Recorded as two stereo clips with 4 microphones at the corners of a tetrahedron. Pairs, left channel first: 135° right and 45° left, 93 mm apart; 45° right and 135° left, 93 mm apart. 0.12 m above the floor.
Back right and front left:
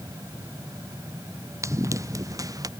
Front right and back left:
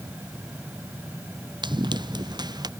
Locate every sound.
1.6 s running footsteps: 100° left; by 2.7 s 95° left